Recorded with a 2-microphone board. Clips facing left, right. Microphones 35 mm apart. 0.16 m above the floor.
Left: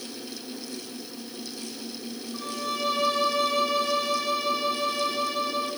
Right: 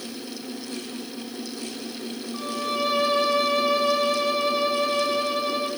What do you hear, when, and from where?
2.3 s a violin: 15° right (ahead or behind), 1.1 m